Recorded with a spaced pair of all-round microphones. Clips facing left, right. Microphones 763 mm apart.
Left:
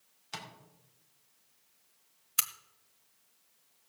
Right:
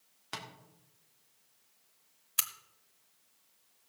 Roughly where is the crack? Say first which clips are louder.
Left 2 dB; left.